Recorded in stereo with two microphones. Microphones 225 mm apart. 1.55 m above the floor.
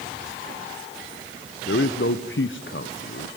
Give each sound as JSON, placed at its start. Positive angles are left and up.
{"t": 1.7, "sound": "a man speaking", "side_deg": 60, "distance_m": 0.8}